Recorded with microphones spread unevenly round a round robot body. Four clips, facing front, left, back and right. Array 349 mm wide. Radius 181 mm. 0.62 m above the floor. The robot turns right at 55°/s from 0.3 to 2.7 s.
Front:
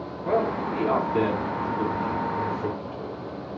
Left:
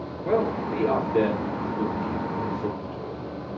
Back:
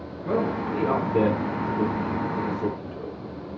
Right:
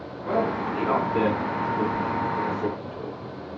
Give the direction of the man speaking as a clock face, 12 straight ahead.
9 o'clock.